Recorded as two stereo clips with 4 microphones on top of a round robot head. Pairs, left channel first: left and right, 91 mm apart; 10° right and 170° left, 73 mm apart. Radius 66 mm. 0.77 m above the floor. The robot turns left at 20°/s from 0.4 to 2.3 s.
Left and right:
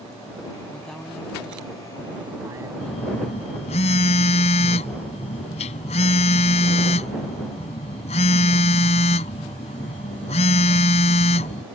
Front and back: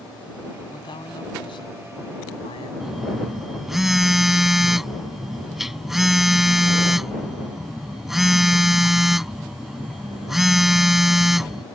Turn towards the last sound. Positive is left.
turn(degrees=80)